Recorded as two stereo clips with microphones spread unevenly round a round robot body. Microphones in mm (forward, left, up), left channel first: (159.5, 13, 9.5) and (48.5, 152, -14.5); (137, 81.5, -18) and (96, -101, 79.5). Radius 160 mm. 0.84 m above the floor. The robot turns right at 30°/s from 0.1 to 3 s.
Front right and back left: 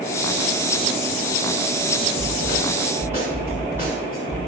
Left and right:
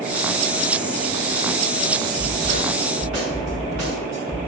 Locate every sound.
2.2 s a snare drum: 175° right, 3.5 m; by 4.4 s 145° right, 3.5 m